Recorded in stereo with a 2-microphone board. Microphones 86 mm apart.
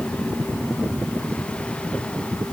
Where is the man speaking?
I don't hear a man speaking.